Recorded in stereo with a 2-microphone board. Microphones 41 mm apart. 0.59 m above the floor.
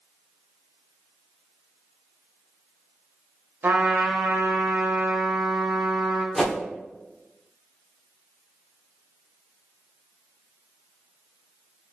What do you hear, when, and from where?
3.6 s a trumpet: 65° right (ahead or behind), 0.7 m
6.3 s a whoosh: 15° left (ahead or behind), 1.0 m